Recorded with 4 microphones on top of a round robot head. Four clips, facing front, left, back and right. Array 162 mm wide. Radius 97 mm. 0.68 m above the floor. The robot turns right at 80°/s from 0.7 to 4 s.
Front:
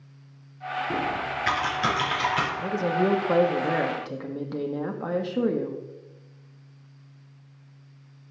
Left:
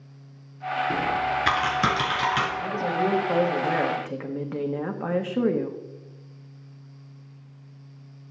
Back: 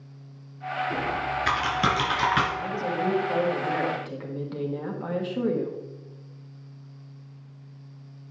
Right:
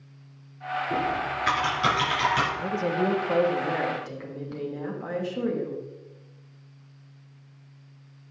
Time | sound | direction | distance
0.9 | typing on a keyboard | 50° left | 3.5 m
2.6 | a woman speaking | 55° right | 1.4 m